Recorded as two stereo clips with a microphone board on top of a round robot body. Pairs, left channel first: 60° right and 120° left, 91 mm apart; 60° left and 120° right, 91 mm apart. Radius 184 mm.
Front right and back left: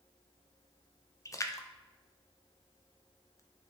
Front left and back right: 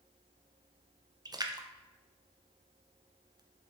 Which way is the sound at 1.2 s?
100° right.